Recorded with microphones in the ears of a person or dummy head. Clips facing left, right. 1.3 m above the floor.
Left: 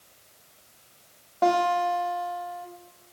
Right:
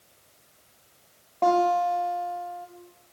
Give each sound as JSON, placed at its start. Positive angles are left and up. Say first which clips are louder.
{"t": 1.4, "sound": "a guitar", "louder": "right 1 dB", "side_deg": 5, "distance_m": 1.0}